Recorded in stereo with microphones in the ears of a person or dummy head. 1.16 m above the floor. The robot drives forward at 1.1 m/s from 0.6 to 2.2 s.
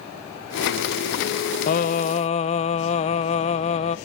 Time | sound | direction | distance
1.7 | singing | 40° left (ahead or behind) | 0.8 m